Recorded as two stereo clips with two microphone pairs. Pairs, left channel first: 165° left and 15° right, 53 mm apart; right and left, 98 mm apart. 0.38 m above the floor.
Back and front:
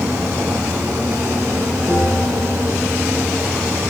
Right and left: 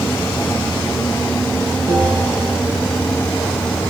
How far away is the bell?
About 3.5 m.